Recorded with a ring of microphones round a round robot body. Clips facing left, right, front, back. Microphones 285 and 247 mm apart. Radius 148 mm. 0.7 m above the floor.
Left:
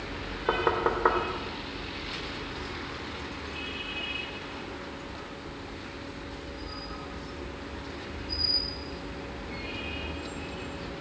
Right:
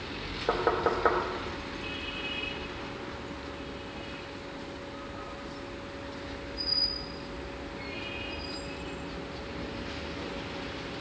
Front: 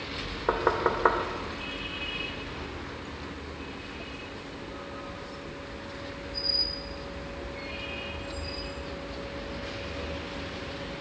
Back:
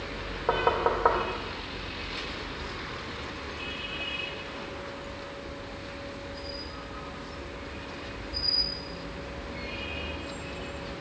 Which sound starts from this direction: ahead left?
Knocking, at 0.5 s.